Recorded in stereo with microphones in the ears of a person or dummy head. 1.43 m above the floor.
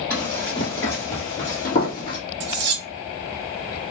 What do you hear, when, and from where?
0.1 s running footsteps: 15° left (ahead or behind), 2.0 m; by 2.2 s 45° left (ahead or behind), 2.0 m
2.4 s cutlery clinking: 65° right (ahead or behind), 1.1 m